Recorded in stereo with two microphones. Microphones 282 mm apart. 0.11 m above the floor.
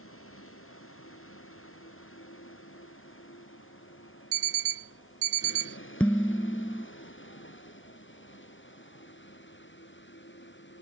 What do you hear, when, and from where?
0.0 s a vehicle: 50° left (ahead or behind); by 10.8 s 40° left (ahead or behind)
4.3 s an alarm clock: 50° right (ahead or behind)
6.0 s dishes clattering: 5° left (ahead or behind)